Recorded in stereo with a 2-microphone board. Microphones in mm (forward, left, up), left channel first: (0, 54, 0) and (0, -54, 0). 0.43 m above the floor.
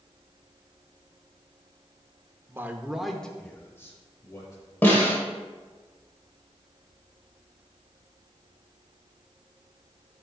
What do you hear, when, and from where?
2.5 s a man speaking: 25° right (ahead or behind), 0.7 m; by 4.6 s 30° left (ahead or behind), 1.5 m
4.8 s a snare drum: 20° left (ahead or behind), 2.0 m